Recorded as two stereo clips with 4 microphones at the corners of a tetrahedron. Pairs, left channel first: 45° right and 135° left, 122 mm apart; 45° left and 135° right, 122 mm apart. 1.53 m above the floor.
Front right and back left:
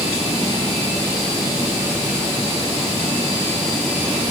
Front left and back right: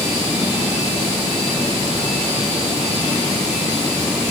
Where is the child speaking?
No child speaking in this recording.